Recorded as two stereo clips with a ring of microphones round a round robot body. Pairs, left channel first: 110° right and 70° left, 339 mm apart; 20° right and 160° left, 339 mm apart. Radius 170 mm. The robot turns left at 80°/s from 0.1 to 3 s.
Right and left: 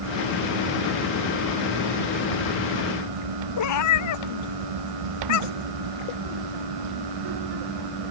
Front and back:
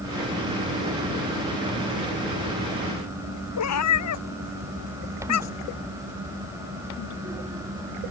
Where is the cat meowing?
70° right.